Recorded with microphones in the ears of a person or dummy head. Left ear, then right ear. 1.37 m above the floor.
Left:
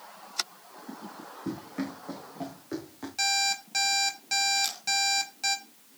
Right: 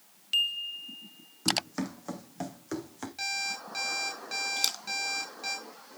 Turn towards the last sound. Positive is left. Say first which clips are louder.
# left 1 dB
turn(degrees=-30)  # may be behind; listen again after turning